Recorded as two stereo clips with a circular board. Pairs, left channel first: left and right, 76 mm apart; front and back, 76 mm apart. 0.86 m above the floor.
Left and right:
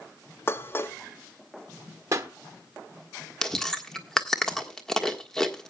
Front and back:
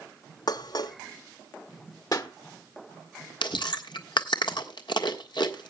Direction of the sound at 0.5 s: 30° left.